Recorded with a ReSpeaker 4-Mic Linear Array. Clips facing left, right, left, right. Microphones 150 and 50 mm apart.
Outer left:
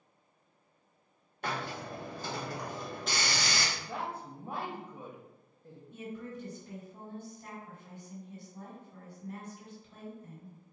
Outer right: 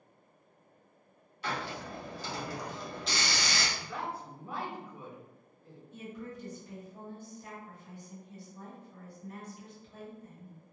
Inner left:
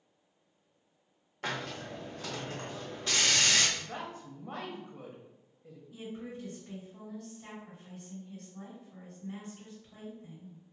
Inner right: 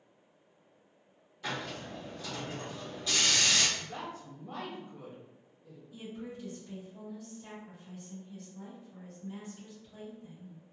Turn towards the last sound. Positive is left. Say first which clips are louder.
# outer left 1 dB, inner left 1 dB
turn(degrees=55)  # may be behind; listen again after turning